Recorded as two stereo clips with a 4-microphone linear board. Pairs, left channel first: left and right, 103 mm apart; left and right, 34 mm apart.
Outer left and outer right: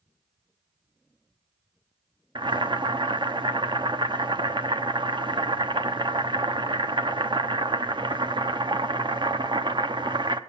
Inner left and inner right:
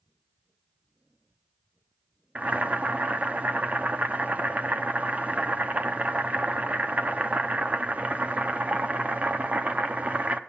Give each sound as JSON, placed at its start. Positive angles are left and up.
{"t": 2.4, "sound": "boiling", "side_deg": -45, "distance_m": 0.8}